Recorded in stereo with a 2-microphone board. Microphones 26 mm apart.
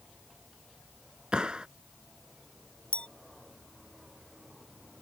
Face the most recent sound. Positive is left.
turn(degrees=50)  # may be behind; listen again after turning